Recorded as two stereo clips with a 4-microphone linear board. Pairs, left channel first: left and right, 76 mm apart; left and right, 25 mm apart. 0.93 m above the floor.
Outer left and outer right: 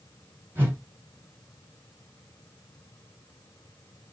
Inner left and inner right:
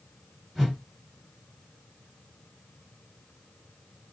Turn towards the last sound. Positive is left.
turn(degrees=-25)  # may be behind; listen again after turning